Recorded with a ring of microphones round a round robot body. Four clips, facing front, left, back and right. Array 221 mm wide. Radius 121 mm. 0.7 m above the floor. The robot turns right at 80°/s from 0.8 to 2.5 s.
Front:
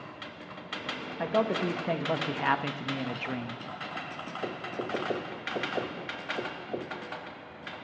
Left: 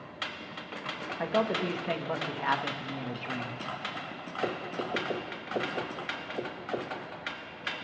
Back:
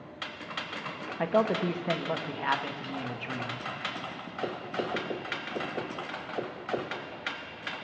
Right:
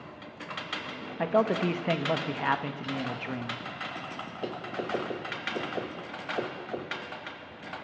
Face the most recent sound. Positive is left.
turn(degrees=-35)